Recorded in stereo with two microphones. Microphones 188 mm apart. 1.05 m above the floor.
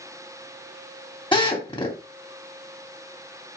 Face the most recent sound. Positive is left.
turn(degrees=25)  # may be behind; listen again after turning